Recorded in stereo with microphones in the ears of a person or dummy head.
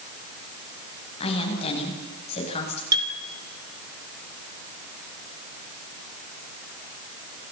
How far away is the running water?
No running water in this recording.